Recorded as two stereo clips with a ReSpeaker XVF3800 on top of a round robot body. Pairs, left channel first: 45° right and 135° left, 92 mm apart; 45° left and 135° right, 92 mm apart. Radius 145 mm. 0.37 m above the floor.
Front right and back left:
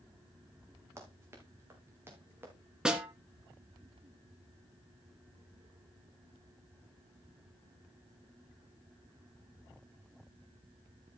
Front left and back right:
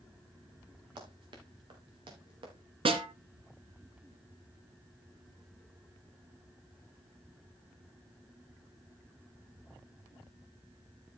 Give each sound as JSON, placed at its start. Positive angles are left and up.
{"t": 1.0, "sound": "running footsteps", "azimuth_deg": -165, "distance_m": 4.0}
{"t": 2.9, "sound": "a snare drum", "azimuth_deg": -145, "distance_m": 2.5}